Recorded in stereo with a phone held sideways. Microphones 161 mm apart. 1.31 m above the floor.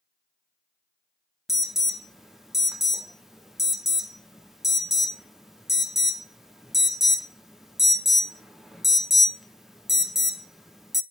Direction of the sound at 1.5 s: Centre (ahead or behind).